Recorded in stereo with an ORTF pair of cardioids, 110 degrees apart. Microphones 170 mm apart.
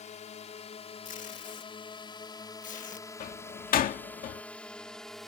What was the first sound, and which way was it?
A drone, 45° left.